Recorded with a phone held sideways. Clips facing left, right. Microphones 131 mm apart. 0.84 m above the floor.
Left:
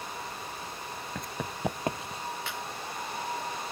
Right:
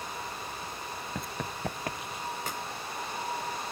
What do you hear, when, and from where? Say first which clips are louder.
1.1 s running footsteps: left 1 dB; 5° right (ahead or behind); by 2.2 s 35° left (ahead or behind)
2.5 s a clap: right 1 dB; 45° right (ahead or behind)